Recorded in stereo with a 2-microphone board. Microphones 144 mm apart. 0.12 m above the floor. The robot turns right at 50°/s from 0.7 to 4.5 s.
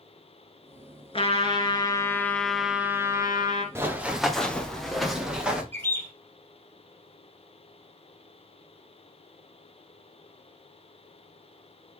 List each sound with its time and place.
1.1 s a trumpet: 110° left, 1.5 m; by 3.6 s 125° right, 1.5 m
3.8 s running footsteps: 15° right (ahead or behind), 1.5 m; by 5.6 s 10° right (ahead or behind), 2 m
5.7 s a bird: 15° left (ahead or behind), 3 m